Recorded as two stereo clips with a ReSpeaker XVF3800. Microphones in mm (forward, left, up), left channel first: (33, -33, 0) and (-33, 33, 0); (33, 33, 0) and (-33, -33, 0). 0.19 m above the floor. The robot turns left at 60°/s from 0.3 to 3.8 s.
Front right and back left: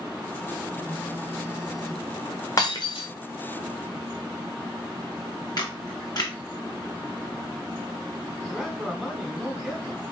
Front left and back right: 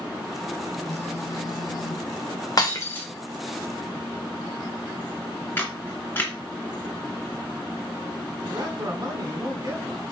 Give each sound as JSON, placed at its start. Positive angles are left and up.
{"t": 0.8, "sound": "a phone buzzing", "azimuth_deg": 100, "distance_m": 1.4}
{"t": 2.6, "sound": "breaking glass", "azimuth_deg": 0, "distance_m": 2.5}
{"t": 5.6, "sound": "a camera shutter", "azimuth_deg": -20, "distance_m": 2.0}
{"t": 8.5, "sound": "a man speaking", "azimuth_deg": -140, "distance_m": 1.5}